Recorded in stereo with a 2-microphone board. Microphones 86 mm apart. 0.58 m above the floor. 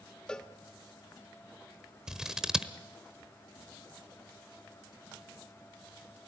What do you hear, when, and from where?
0.3 s a cowbell: 10° left (ahead or behind), 0.9 m
2.1 s scissors: 10° right (ahead or behind), 1.1 m